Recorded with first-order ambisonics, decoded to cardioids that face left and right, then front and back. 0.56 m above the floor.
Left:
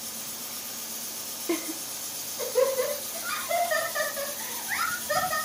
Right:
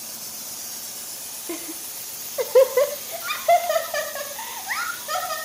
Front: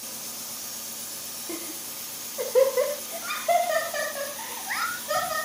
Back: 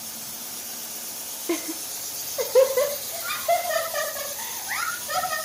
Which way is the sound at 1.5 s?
160° left.